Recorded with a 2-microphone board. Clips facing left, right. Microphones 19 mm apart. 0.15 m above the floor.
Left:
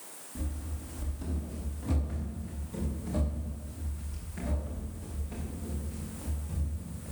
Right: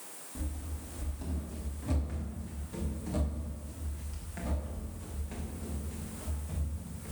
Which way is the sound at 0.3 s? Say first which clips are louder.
Left 2 dB; 5° right (ahead or behind).